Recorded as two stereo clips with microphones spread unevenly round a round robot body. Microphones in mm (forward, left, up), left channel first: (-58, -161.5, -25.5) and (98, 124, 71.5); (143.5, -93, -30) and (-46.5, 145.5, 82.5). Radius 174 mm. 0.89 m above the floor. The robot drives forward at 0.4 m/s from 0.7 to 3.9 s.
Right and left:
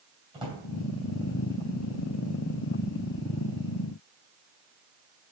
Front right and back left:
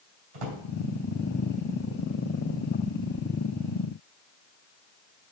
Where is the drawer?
140° left, 3 m.